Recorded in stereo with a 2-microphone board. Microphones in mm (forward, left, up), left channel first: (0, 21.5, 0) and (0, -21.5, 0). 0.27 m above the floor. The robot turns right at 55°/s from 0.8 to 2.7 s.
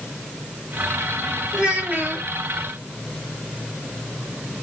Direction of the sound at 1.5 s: 165° right.